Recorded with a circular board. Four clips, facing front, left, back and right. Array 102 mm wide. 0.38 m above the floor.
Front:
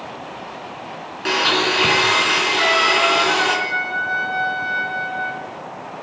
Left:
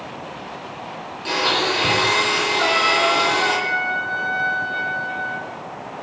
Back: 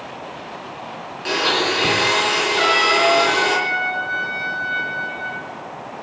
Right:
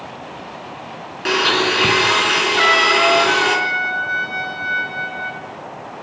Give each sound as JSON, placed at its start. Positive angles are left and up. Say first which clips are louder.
{"t": 1.2, "sound": "a blender", "louder": "right 3 dB, front 1 dB", "azimuth_deg": -70, "distance_m": 4.0}
{"t": 2.6, "sound": "a trumpet", "louder": "right 4 dB, back 1 dB", "azimuth_deg": -95, "distance_m": 3.0}